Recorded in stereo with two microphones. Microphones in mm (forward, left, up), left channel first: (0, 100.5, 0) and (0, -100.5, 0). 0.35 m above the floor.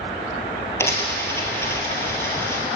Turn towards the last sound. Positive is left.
turn(degrees=10)  # may be behind; listen again after turning